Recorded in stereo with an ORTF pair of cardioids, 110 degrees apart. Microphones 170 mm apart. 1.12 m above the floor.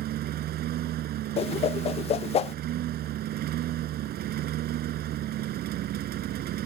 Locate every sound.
0.0 s a lawn mower: 70° right
1.4 s a whoosh: 35° left